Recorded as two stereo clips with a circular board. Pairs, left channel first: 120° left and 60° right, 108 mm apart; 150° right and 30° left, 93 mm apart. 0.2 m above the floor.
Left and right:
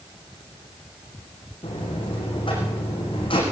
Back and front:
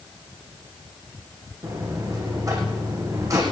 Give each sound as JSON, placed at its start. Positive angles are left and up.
{"t": 1.6, "sound": "a buzzer", "azimuth_deg": 80, "distance_m": 7.5}